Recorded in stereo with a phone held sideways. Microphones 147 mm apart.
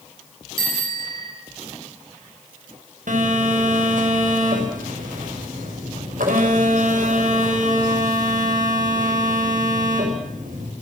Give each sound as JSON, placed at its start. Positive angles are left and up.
{"t": 0.6, "sound": "a bicycle bell", "side_deg": -85, "distance_m": 7.5}
{"t": 3.1, "sound": "a phone buzzing", "side_deg": -70, "distance_m": 6.0}